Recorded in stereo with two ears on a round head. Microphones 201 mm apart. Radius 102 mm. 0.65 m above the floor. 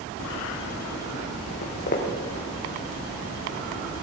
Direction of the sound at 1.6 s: 40° left (ahead or behind).